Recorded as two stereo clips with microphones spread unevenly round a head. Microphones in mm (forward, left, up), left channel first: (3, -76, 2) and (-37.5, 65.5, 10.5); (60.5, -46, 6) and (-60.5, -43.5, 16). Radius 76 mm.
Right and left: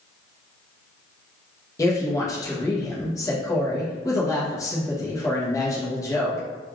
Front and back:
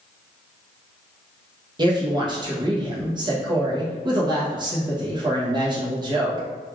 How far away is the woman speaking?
About 0.9 m.